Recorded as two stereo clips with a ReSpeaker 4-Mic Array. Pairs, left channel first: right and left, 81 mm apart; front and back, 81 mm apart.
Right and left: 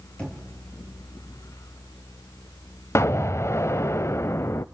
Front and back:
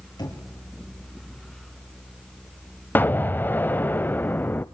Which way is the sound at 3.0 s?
55° right.